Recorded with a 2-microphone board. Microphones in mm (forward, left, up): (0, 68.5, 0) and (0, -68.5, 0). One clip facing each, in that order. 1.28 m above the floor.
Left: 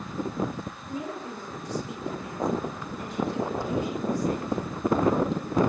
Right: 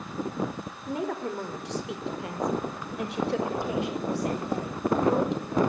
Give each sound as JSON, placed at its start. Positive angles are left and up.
{"t": 0.9, "sound": "a woman speaking", "side_deg": -75, "distance_m": 4.0}